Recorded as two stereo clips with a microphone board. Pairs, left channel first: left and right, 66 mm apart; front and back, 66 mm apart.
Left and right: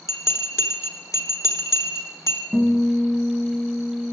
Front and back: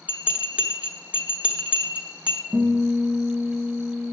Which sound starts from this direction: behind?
A guitar, at 2.5 s.